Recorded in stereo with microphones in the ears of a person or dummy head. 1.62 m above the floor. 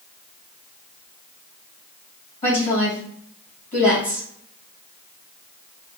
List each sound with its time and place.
2.4 s a woman speaking: 40° left (ahead or behind), 2.0 m